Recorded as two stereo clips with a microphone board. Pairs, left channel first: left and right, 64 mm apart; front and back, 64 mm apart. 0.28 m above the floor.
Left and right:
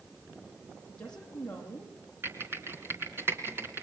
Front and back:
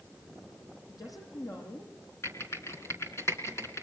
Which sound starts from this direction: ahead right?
Typing on a keyboard, at 2.2 s.